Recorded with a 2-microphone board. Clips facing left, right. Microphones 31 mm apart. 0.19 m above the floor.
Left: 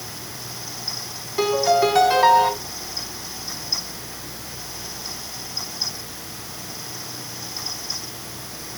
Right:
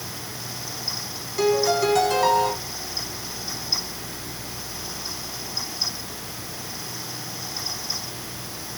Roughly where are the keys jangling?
I don't hear keys jangling.